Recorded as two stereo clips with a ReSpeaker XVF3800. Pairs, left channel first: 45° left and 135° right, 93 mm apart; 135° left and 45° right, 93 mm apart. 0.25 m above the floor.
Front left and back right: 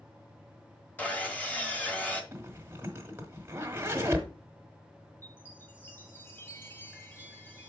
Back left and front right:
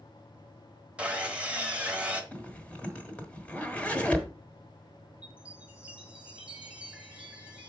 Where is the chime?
15° left, 1.6 m.